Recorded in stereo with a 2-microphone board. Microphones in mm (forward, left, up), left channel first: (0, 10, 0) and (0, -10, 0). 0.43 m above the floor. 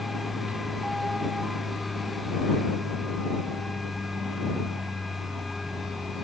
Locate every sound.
0.0 s an aircraft: 55° right (ahead or behind); by 6.2 s 60° right (ahead or behind)